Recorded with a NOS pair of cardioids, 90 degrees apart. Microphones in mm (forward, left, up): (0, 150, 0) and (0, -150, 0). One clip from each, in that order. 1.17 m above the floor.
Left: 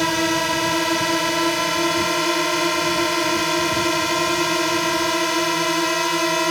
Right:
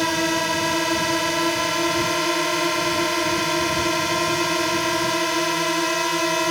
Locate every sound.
0.0 s a drone: 15° left